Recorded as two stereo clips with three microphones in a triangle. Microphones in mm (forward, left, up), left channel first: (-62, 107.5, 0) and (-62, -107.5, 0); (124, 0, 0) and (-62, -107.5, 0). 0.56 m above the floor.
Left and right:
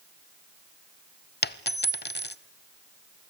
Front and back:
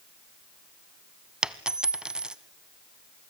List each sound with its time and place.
1.4 s a dropped coin: 125° left, 0.7 m